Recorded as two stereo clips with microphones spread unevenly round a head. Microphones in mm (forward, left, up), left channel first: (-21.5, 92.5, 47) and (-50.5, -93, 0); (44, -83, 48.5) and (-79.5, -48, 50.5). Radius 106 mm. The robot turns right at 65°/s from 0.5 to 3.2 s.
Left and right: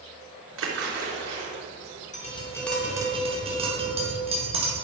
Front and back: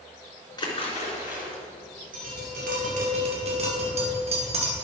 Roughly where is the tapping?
Behind left.